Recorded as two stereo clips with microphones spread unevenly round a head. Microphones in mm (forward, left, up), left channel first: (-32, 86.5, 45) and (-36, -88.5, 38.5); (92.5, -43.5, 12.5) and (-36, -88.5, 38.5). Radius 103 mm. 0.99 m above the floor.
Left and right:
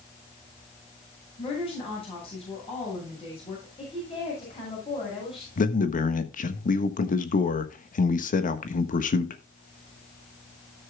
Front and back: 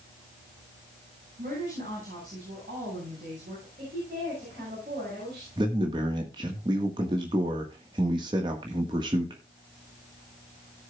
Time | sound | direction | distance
1.4 | a woman speaking | 145° left | 7.5 m
3.8 | a woman speaking | 145° left | 6.5 m
5.6 | a man speaking | 130° left | 1.2 m